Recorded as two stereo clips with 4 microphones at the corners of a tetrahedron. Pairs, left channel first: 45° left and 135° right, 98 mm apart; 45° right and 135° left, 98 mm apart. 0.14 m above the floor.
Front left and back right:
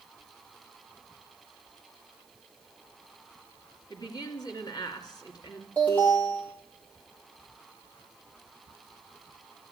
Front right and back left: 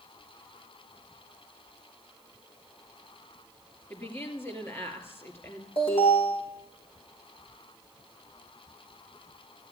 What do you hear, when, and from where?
3.9 s a woman speaking: 15° left, 2.5 m
5.8 s an alarm: 30° right, 6.5 m